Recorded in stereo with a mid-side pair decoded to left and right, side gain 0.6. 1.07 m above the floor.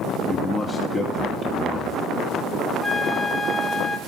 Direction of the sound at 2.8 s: 15° left.